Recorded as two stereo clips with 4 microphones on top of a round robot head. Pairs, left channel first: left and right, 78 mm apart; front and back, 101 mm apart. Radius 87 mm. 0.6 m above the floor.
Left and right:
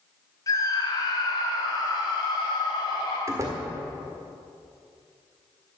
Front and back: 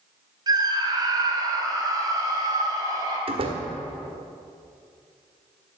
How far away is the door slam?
About 1.7 m.